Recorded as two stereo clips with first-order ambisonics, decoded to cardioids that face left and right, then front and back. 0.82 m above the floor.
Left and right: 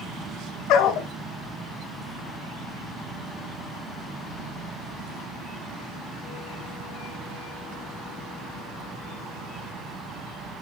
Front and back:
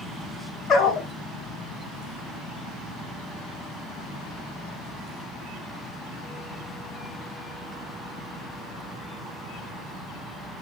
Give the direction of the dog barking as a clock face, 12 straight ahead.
10 o'clock.